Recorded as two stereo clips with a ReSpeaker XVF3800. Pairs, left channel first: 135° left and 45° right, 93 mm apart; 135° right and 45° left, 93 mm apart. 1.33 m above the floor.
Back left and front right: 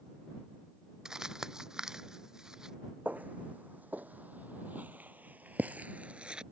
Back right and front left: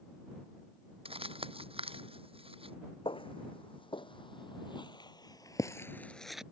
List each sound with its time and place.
1.1 s crumpling: 40° left
3.0 s footsteps: 120° right; by 6.4 s 5° right